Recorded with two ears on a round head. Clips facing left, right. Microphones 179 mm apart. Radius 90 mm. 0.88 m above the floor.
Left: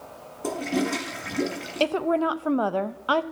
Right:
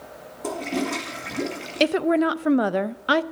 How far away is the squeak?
No squeak in this recording.